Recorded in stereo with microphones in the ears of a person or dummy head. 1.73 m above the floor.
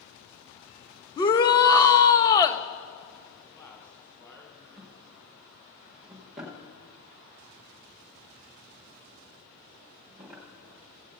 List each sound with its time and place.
1.2 s a shout: 20° left (ahead or behind), 0.7 m
3.4 s a man speaking: 15° left (ahead or behind), 4 m
4.8 s a drawer: centre (ahead or behind), 1.3 m